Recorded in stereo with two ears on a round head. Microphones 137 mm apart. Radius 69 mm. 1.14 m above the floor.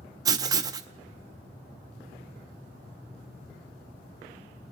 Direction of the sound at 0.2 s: 25° right (ahead or behind).